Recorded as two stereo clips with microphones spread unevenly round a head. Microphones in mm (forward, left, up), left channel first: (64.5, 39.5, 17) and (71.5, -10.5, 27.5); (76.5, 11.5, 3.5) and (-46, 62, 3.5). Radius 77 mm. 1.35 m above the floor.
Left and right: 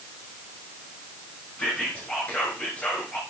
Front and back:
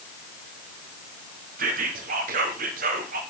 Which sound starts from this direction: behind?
Whispering, at 1.6 s.